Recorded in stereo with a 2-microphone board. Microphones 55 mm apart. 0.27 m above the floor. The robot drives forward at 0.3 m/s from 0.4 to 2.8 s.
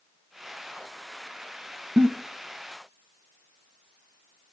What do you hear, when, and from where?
2.0 s a giggle: 40° right (ahead or behind), 0.6 m